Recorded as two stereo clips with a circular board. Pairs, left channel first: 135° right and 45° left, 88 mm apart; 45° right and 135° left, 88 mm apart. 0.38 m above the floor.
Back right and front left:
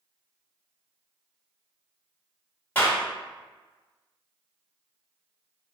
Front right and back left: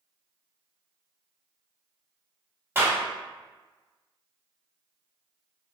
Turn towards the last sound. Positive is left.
turn(degrees=175)